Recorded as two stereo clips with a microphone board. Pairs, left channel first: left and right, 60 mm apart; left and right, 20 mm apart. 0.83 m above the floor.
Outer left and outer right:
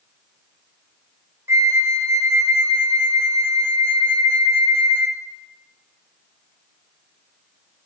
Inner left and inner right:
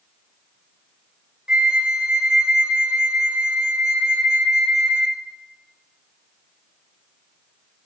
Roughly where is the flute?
Right.